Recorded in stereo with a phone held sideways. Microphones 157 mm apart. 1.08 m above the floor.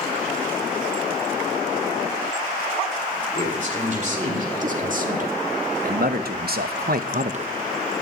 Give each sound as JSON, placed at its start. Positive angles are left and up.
{"t": 3.3, "sound": "a man speaking", "side_deg": -50, "distance_m": 3.0}